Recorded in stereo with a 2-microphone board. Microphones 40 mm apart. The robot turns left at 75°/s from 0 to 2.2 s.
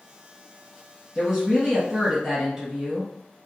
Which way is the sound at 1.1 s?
20° right (ahead or behind).